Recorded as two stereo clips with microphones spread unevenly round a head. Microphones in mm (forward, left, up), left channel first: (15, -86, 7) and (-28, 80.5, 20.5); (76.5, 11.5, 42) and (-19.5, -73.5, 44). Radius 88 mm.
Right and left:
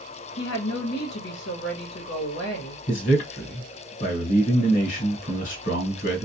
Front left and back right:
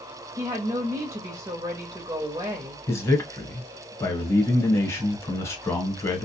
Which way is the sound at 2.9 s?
30° right.